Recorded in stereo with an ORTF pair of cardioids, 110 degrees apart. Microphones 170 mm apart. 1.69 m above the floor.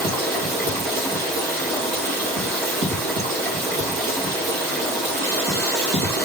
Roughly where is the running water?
Right.